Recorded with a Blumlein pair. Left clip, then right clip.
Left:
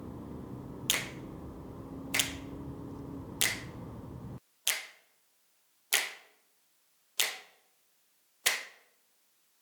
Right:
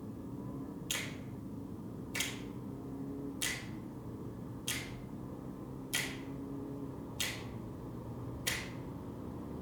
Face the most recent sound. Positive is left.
turn(degrees=45)